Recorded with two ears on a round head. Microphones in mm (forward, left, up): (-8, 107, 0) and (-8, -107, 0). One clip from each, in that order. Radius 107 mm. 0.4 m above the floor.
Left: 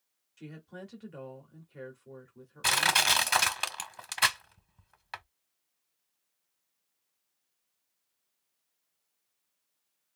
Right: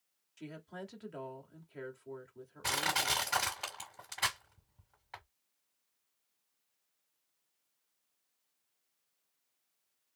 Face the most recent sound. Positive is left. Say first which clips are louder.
# left 8 dB
turn(degrees=65)  # may be behind; listen again after turning